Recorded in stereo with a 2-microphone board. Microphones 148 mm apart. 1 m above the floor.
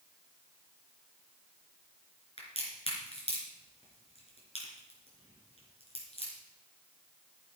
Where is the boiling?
No boiling in this recording.